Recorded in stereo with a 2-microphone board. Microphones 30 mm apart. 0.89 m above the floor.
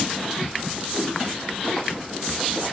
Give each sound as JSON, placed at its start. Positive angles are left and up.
{"t": 0.9, "sound": "a whoosh", "side_deg": 75, "distance_m": 3.5}